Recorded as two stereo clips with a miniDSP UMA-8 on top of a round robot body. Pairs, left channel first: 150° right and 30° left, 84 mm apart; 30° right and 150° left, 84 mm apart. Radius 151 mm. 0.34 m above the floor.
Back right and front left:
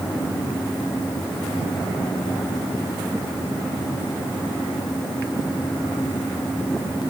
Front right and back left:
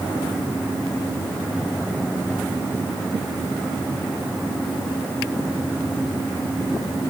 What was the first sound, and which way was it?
Only background noise.